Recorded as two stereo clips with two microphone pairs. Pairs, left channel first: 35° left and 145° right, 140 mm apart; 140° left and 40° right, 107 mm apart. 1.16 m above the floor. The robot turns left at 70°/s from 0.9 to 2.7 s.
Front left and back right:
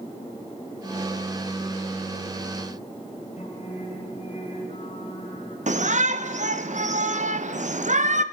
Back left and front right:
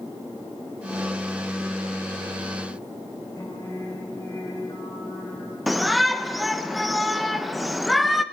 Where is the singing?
80° left, 9.5 m.